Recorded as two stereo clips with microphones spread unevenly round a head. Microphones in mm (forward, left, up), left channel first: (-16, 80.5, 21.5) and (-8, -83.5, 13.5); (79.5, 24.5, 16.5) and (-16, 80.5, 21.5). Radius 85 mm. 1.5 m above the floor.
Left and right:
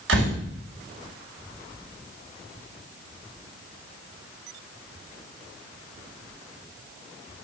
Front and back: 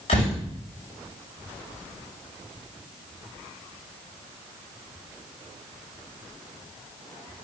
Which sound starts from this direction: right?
A door slam, at 0.1 s.